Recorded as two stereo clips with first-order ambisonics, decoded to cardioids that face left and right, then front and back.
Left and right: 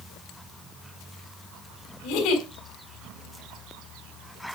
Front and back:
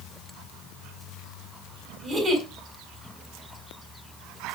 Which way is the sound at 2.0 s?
120° left.